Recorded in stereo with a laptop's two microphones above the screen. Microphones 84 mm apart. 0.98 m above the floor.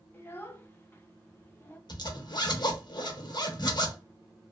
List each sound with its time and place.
0.1 s a child speaking: 25° left (ahead or behind), 0.6 m
1.9 s a zipper: 55° left (ahead or behind), 0.7 m